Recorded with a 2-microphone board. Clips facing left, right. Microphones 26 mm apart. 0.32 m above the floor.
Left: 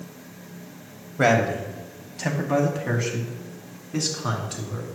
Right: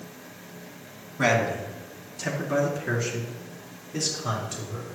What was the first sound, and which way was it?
A man speaking, 35° left (ahead or behind).